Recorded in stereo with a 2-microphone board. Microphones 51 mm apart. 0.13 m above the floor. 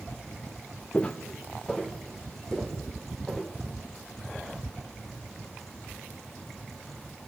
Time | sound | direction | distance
0.9 | footsteps | 25° left (ahead or behind) | 0.8 m